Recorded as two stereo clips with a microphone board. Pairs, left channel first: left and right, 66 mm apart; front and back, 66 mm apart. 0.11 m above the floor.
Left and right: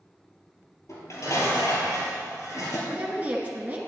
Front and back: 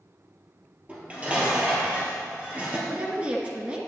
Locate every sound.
0.9 s dishes clattering: 115° left, 2.0 m
2.9 s a woman speaking: 130° right, 1.3 m